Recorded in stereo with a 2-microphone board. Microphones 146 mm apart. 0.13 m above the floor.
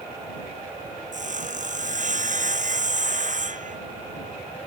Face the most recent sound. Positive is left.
turn(degrees=-60)  # may be behind; listen again after turning